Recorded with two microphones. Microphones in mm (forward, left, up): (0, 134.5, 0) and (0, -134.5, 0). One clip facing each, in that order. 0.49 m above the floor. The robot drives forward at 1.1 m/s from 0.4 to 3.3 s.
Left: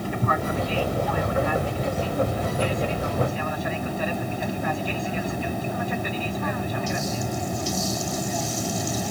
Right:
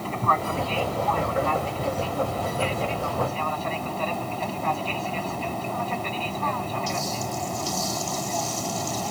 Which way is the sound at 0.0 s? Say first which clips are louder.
Left 2 dB; 15° left (ahead or behind).